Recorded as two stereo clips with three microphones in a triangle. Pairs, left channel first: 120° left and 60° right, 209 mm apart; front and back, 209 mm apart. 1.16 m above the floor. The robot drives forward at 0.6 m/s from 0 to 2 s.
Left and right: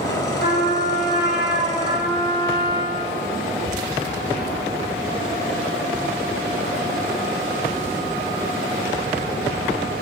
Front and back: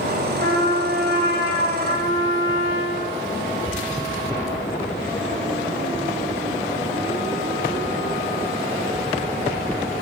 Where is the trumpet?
150° left, 6.5 m; by 3.1 s 155° left, 7 m.